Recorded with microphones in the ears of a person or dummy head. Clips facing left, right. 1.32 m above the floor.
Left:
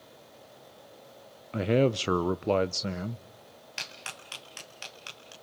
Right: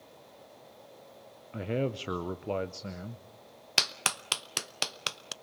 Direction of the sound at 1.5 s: 65° left (ahead or behind).